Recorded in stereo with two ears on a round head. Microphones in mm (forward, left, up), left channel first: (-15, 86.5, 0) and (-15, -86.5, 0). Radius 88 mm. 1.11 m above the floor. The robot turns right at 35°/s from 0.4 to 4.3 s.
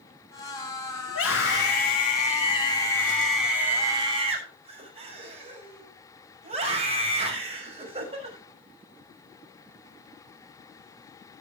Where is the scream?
100° left, 6 m; by 8.4 s 145° right, 6 m.